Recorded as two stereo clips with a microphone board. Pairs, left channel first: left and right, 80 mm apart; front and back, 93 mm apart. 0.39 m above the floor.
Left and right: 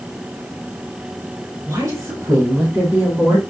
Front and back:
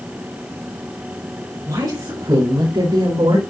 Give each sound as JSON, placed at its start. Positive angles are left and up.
{"t": 1.7, "sound": "a woman speaking", "azimuth_deg": -130, "distance_m": 4.5}